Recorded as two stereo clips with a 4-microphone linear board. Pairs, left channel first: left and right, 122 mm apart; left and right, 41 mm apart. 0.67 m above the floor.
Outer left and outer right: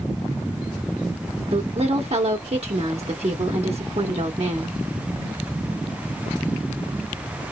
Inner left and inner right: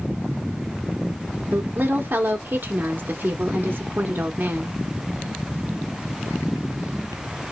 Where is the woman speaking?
55° right (ahead or behind), 0.9 m.